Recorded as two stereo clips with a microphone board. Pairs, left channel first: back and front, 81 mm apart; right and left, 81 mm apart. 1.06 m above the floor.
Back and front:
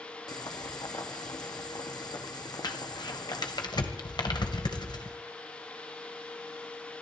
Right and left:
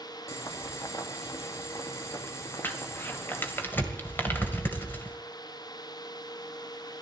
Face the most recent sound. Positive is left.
turn(degrees=-155)